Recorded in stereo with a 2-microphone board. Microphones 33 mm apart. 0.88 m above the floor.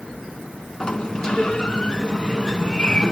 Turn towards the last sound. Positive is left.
turn(degrees=30)  # may be behind; listen again after turning